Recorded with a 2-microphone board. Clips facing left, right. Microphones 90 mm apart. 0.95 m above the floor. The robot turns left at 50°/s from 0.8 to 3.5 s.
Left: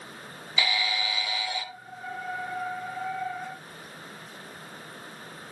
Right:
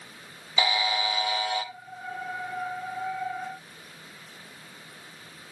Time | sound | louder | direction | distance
0.6 | a buzzer | right 3 dB | 45° right | 0.9 m